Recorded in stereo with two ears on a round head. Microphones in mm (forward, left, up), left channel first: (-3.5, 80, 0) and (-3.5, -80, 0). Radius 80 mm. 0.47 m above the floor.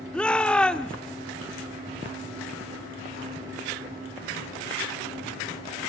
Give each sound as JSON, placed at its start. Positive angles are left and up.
{"t": 0.1, "sound": "a shout", "side_deg": 5, "distance_m": 0.7}